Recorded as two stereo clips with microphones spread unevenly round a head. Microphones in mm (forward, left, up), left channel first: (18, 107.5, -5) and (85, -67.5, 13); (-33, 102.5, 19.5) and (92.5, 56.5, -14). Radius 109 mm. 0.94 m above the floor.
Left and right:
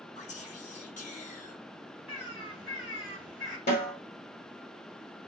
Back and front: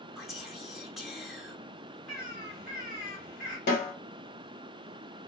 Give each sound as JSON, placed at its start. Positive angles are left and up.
{"t": 0.2, "sound": "whispering", "azimuth_deg": 65, "distance_m": 0.8}
{"t": 2.1, "sound": "a bird", "azimuth_deg": -145, "distance_m": 1.1}
{"t": 3.7, "sound": "a snare drum", "azimuth_deg": 150, "distance_m": 1.3}